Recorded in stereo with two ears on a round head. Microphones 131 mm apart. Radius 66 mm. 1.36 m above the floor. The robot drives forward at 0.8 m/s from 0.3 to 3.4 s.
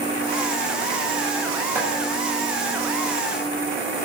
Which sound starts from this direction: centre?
Chopping, at 1.8 s.